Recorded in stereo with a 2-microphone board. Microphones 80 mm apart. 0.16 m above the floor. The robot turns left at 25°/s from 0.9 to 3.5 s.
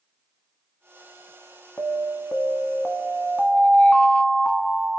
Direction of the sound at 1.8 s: 65° left.